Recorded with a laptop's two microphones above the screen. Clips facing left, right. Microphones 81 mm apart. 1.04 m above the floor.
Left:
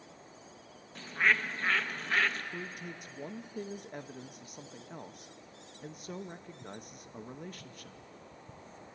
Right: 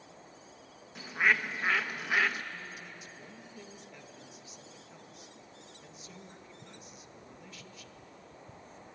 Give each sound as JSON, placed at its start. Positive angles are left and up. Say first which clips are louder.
{"t": 0.9, "sound": "a bird", "louder": "right 1 dB", "side_deg": -10, "distance_m": 0.8}
{"t": 2.5, "sound": "a man speaking", "louder": "left 4 dB", "side_deg": 50, "distance_m": 0.9}